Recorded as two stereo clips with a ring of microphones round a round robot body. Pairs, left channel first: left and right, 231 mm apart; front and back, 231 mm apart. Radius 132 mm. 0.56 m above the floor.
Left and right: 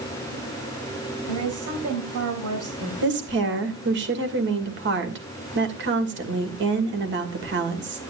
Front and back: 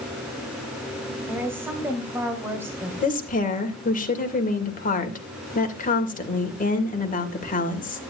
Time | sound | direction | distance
1.3 | a woman speaking | 100° right | 3 m
3.0 | a woman speaking | 50° right | 2.5 m